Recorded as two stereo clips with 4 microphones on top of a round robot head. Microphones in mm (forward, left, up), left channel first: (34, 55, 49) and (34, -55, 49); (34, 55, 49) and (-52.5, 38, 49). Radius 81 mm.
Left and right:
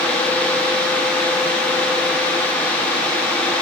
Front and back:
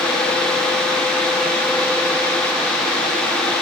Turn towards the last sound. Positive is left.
No sound to turn to.